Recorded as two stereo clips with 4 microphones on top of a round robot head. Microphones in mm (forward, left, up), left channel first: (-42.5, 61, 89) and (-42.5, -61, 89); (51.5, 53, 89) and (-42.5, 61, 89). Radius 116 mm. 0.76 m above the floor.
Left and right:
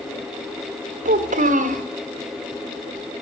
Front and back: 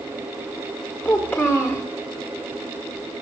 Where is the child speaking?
75° right, 1.4 m.